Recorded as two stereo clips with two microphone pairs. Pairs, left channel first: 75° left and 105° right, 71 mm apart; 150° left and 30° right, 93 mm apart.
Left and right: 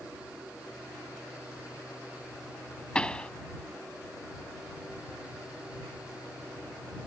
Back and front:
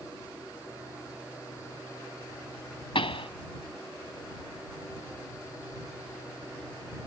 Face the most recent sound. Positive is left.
turn(degrees=150)